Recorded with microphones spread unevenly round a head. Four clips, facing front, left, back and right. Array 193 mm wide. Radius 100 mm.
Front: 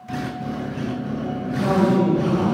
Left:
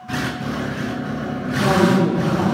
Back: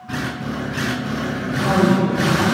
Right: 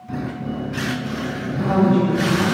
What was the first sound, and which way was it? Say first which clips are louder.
A woman speaking: left 1 dB, back 1 dB; 80° left.